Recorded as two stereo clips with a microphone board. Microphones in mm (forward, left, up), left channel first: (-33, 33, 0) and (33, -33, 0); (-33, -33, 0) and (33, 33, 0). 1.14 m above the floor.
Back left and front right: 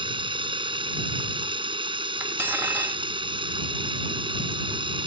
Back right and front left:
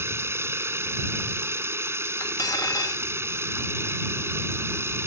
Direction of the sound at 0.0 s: 20° right.